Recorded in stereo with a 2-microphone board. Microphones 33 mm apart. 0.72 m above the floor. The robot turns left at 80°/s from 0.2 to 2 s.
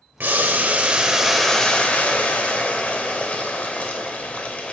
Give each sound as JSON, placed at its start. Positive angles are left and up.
{"t": 0.2, "sound": "boiling", "azimuth_deg": -90, "distance_m": 0.8}